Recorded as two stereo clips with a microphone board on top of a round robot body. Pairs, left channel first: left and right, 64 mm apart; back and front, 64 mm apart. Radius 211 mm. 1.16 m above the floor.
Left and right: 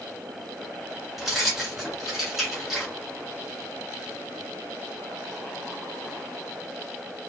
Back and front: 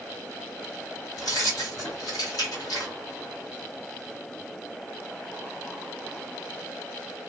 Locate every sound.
1.2 s keys jangling: straight behind, 1.2 m